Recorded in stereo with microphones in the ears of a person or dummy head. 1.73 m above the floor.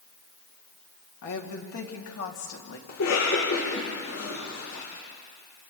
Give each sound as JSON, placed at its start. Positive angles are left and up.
{"t": 1.2, "sound": "a woman speaking", "side_deg": 70, "distance_m": 3.0}
{"t": 2.9, "sound": "a cough", "side_deg": 70, "distance_m": 3.5}